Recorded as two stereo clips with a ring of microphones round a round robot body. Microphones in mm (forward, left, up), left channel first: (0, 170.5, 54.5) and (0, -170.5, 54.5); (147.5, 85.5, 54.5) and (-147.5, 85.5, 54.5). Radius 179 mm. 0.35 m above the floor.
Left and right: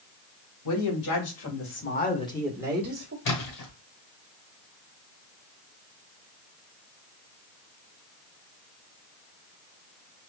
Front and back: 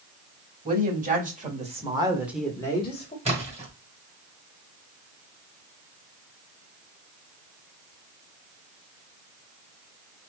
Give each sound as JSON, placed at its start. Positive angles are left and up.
{"t": 0.7, "sound": "a woman speaking", "azimuth_deg": 120, "distance_m": 3.0}
{"t": 3.2, "sound": "a splash", "azimuth_deg": 115, "distance_m": 2.0}